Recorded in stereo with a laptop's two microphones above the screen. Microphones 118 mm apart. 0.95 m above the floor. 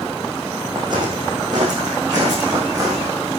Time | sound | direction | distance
0.8 | footsteps | 40° right (ahead or behind) | 3.5 m